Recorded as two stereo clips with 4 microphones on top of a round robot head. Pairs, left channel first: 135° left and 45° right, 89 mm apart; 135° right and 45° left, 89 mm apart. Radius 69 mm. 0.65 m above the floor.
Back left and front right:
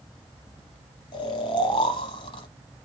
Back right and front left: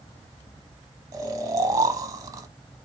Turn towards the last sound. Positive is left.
turn(degrees=95)